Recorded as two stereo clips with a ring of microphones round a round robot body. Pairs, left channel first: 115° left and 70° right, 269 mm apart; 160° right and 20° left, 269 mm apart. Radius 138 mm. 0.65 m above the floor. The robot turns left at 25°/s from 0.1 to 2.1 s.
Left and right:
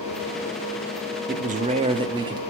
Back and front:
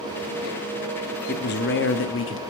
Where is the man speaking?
115° right, 0.8 m; by 2.4 s 135° right, 0.8 m.